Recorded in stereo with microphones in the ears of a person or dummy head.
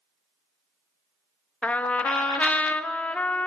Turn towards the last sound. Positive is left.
turn(degrees=10)  # may be behind; listen again after turning